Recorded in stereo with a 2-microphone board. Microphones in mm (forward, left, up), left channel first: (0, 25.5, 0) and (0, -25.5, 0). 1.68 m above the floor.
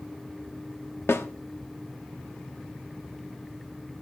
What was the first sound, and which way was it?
A snare drum, 50° left (ahead or behind).